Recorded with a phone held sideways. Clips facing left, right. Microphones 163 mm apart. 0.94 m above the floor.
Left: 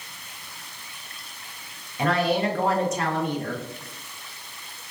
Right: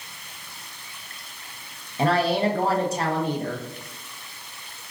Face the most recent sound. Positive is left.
turn(degrees=-30)  # may be behind; listen again after turning